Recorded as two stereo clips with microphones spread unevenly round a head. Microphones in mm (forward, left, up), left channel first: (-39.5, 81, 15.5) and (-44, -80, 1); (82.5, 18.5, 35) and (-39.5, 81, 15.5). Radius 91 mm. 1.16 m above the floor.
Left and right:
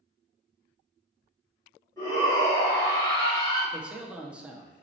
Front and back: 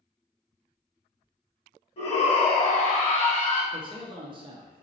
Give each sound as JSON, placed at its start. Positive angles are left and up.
{"t": 2.0, "sound": "a shout", "azimuth_deg": 10, "distance_m": 1.7}
{"t": 3.7, "sound": "a man speaking", "azimuth_deg": -170, "distance_m": 0.6}